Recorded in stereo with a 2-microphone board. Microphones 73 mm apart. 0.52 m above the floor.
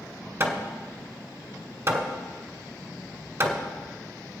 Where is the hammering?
45° right (ahead or behind), 1.4 m.